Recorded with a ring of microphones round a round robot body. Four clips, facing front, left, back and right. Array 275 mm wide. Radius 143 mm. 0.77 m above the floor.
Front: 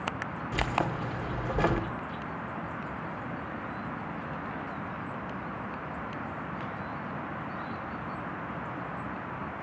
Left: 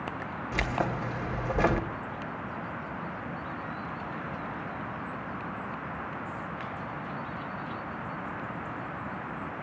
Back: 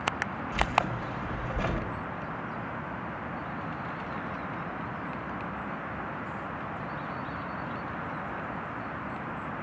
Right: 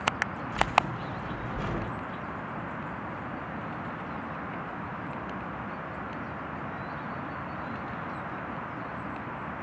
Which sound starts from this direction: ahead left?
Keys jangling, at 0.5 s.